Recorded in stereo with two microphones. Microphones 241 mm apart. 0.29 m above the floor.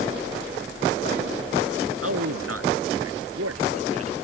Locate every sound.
2.0 s a man speaking: 70° right (ahead or behind); by 4.2 s 80° right